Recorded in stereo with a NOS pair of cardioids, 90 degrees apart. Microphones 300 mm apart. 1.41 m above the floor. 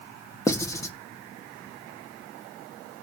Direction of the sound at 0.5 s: 10° left.